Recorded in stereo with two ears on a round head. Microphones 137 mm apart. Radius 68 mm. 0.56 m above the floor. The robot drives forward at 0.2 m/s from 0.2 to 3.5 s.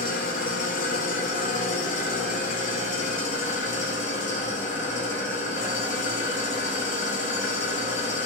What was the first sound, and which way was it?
An engine running, 60° left (ahead or behind).